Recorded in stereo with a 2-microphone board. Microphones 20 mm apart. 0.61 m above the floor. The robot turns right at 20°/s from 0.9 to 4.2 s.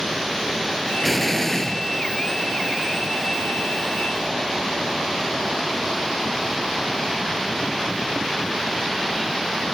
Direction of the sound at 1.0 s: 10° left (ahead or behind).